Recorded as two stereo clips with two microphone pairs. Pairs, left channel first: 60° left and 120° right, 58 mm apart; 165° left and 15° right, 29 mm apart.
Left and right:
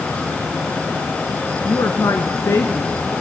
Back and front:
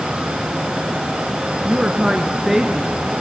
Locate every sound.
1.6 s a woman speaking: 35° left, 1.8 m; by 2.9 s 80° left, 1.8 m